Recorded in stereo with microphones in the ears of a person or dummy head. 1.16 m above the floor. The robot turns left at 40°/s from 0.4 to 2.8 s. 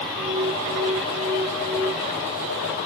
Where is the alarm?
165° right, 7.5 m; by 1.9 s 130° left, 7.5 m.